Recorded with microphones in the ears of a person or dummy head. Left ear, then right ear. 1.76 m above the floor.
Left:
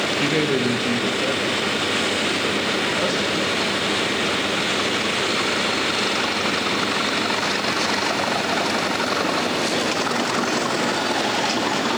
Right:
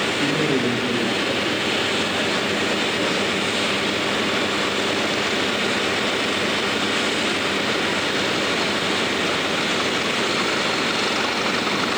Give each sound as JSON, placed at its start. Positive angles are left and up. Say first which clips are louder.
{"t": 0.2, "sound": "a man speaking", "louder": "even", "side_deg": 40, "distance_m": 1.1}